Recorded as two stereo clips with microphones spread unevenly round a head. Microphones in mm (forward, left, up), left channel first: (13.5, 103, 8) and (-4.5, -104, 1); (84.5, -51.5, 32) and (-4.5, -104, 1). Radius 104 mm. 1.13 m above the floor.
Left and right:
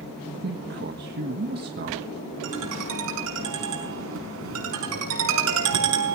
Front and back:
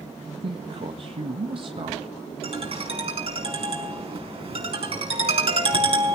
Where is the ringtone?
120° right, 5.5 m.